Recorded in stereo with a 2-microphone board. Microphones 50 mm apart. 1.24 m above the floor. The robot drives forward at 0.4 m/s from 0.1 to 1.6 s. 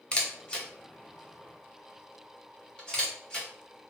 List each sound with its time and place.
0.1 s a camera shutter: 20° left (ahead or behind), 0.6 m; by 3.9 s 10° left (ahead or behind), 1.2 m